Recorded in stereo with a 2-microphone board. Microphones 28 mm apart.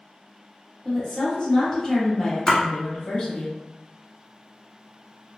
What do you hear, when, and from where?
0.8 s a woman speaking: 20° left (ahead or behind), 1.4 m
2.5 s a splash: 15° left (ahead or behind), 1.0 m